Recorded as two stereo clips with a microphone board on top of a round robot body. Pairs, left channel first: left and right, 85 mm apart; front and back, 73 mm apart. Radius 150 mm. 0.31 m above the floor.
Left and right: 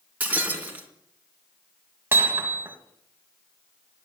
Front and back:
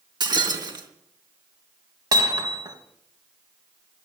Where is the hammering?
155° right, 2.5 m.